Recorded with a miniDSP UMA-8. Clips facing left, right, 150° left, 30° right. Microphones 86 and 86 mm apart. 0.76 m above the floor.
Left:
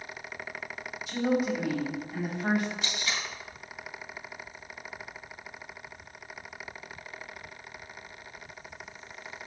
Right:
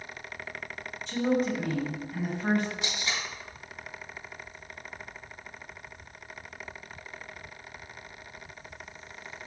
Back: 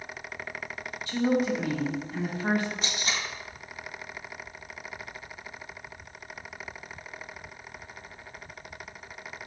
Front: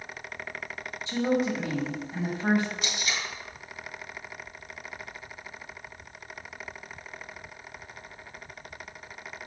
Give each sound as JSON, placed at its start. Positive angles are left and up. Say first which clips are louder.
{"t": 1.1, "sound": "a woman speaking", "louder": "right 1 dB, back 1 dB", "azimuth_deg": 15, "distance_m": 1.1}
{"t": 2.8, "sound": "tape being pulled", "louder": "even, even", "azimuth_deg": -160, "distance_m": 0.9}